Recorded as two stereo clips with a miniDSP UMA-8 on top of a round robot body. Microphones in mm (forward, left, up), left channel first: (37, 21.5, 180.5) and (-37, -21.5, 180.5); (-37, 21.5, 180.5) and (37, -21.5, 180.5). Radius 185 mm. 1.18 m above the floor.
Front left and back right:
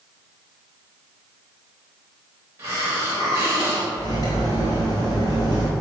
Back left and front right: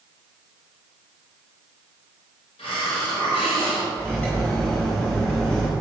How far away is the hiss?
About 0.9 m.